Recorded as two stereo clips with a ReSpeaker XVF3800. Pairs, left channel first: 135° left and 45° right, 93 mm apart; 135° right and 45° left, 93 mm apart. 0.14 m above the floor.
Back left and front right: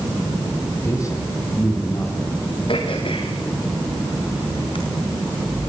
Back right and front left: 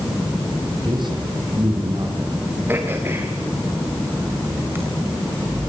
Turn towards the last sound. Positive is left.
turn(degrees=110)